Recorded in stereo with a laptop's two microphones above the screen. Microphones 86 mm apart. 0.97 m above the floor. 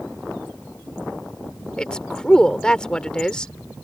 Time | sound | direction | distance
1.8 | a woman speaking | 10° left (ahead or behind) | ?